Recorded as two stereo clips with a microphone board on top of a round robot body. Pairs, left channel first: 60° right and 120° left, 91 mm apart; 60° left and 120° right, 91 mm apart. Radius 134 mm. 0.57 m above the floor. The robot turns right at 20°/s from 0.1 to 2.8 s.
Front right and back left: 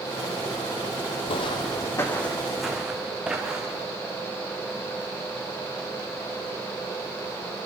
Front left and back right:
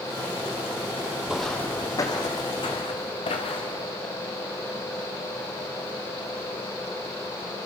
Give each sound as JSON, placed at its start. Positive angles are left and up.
{"t": 1.3, "sound": "footsteps", "azimuth_deg": -40, "distance_m": 1.3}